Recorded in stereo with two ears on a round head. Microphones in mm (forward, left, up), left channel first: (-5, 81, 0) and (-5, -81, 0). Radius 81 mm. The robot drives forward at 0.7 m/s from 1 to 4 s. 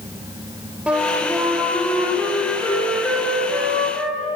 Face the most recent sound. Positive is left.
turn(degrees=-5)  # may be behind; listen again after turning